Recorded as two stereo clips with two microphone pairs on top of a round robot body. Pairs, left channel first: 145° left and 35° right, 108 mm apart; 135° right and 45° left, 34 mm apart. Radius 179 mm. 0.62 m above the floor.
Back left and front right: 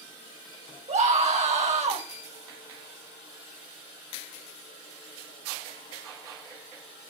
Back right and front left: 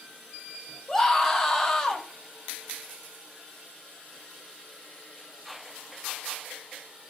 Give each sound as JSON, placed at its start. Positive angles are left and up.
{"t": 0.9, "sound": "a scream", "azimuth_deg": -55, "distance_m": 4.0}